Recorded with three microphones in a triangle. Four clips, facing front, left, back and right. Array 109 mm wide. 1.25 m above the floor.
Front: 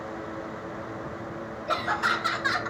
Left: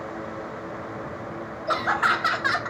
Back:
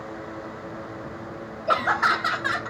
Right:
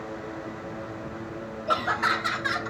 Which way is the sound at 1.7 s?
170° left.